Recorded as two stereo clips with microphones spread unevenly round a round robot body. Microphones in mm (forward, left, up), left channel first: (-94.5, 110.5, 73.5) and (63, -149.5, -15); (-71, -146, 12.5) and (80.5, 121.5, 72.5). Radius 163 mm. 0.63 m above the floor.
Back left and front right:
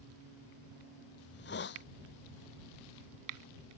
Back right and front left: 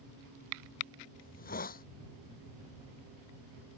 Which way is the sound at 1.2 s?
175° left.